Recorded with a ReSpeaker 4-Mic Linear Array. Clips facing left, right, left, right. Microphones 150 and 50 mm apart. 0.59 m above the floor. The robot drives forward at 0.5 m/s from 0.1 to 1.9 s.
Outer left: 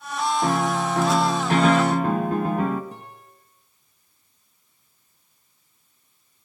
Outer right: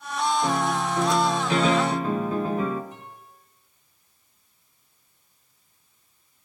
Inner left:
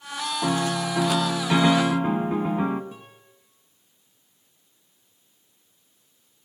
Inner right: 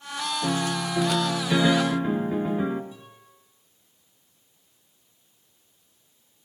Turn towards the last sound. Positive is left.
turn(degrees=60)  # may be behind; listen again after turning